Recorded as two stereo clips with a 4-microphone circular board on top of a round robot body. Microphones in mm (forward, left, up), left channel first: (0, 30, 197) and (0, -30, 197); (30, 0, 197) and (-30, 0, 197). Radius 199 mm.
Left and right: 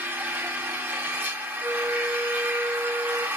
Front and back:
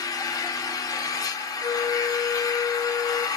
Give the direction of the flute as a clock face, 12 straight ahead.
1 o'clock.